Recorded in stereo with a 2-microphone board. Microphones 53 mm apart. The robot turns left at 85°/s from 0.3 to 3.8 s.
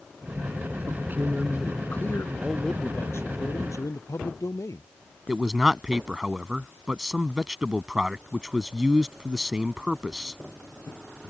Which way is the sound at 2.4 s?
165° right.